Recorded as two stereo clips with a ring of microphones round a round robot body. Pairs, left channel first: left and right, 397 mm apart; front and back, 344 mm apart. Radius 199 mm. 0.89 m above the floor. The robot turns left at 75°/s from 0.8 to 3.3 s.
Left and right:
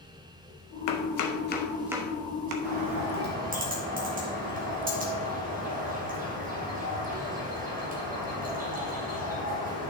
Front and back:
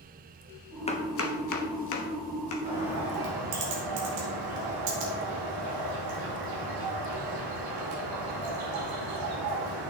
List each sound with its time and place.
0.9 s chopping: 75° left, 1.2 m; by 2.5 s 55° right, 1.2 m
2.6 s a bird: 110° right, 2 m; by 9.9 s 160° right, 2 m